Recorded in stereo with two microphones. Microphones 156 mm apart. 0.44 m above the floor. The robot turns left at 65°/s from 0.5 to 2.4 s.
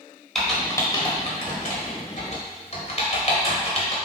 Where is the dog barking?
I don't hear a dog barking.